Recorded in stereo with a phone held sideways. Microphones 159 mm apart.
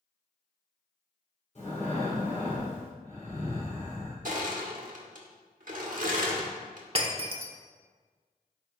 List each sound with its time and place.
1.6 s breathing: 45° left (ahead or behind), 3 m
4.2 s crushing: 55° right (ahead or behind), 1.3 m
7.0 s breaking glass: 40° right (ahead or behind), 0.9 m